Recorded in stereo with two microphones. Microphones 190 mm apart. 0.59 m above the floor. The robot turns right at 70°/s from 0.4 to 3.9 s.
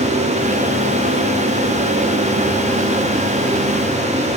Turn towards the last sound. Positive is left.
No sound to turn to.